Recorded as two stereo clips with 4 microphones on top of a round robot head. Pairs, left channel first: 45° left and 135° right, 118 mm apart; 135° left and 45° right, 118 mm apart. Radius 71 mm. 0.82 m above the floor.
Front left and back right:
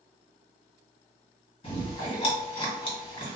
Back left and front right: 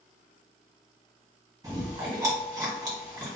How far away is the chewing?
About 1.6 m.